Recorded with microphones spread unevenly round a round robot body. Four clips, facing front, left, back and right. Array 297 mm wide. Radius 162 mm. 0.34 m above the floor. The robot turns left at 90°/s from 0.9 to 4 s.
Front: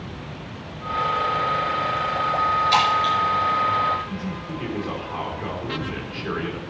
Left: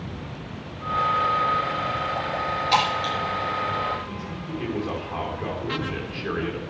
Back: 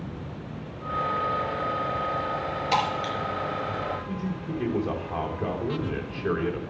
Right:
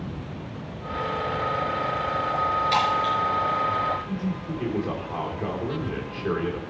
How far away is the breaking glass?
About 1.4 m.